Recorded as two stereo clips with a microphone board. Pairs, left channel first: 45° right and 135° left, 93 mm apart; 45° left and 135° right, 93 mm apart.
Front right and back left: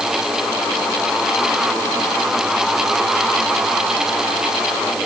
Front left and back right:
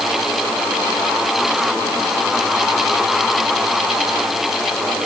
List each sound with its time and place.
Only background noise.